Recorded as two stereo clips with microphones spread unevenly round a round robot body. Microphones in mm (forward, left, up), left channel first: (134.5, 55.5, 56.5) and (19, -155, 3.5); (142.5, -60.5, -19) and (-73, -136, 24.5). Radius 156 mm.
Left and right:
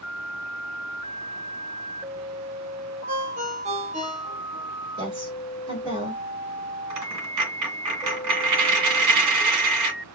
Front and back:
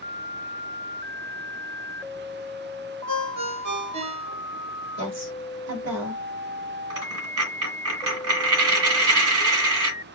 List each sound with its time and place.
3.1 s a ringtone: 175° left, 0.9 m
5.0 s a woman speaking: 175° left, 1.7 m
6.9 s a dropped coin: 150° right, 1.5 m